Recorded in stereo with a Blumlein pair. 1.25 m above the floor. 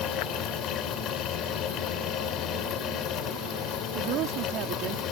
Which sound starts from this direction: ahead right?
A woman speaking, at 4.0 s.